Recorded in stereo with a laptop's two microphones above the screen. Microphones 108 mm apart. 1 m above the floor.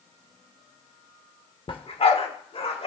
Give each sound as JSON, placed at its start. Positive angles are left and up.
{"t": 1.7, "sound": "a dog barking", "side_deg": 45, "distance_m": 0.9}